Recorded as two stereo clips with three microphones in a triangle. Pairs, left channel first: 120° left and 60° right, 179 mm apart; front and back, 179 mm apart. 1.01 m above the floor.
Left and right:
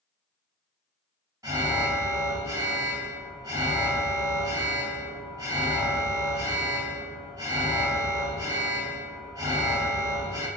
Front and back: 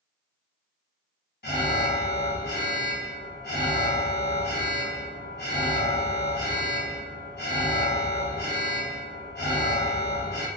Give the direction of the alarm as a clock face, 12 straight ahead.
12 o'clock.